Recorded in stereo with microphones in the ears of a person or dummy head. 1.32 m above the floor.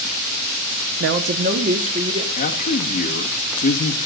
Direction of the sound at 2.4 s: 40° left (ahead or behind).